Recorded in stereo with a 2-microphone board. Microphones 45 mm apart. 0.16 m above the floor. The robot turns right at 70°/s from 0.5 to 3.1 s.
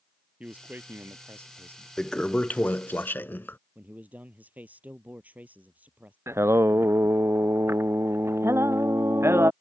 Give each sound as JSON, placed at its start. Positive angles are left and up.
{"t": 0.4, "sound": "a man speaking", "azimuth_deg": -145}
{"t": 2.0, "sound": "a toilet flushing", "azimuth_deg": 10}
{"t": 3.8, "sound": "a man speaking", "side_deg": -40}
{"t": 6.3, "sound": "singing", "side_deg": -85}